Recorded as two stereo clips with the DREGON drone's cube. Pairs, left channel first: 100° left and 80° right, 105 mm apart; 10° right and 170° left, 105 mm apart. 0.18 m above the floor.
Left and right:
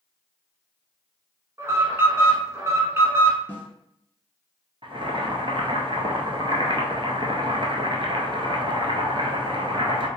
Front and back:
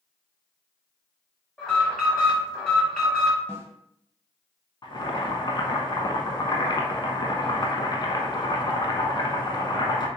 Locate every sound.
1.6 s an alarm: 85° right, 1.3 m
3.5 s a snare drum: 140° left, 0.8 m
4.8 s boiling: 55° right, 0.7 m